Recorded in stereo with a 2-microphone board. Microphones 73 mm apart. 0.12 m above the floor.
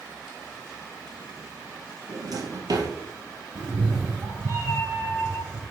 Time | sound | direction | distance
2.1 | a drawer | 60° right (ahead or behind) | 0.8 m
3.5 | a cat meowing | 45° right (ahead or behind) | 0.7 m